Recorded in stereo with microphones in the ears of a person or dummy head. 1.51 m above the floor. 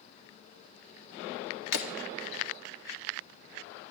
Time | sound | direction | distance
1.7 | breaking glass | 75° left (ahead or behind) | 2 m